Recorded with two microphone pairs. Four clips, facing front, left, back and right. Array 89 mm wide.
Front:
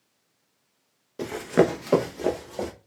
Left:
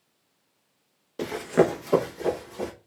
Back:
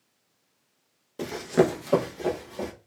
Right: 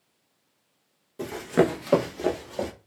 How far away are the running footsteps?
About 0.6 m.